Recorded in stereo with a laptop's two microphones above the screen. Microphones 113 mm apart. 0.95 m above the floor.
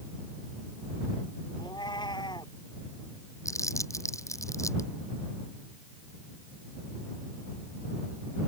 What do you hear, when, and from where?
1.6 s a cat meowing: 40° left (ahead or behind)
3.5 s crumpling: 25° left (ahead or behind)